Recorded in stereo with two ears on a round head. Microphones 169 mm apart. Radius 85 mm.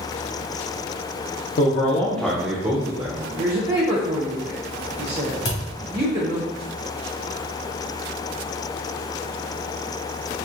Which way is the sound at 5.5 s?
60° left (ahead or behind).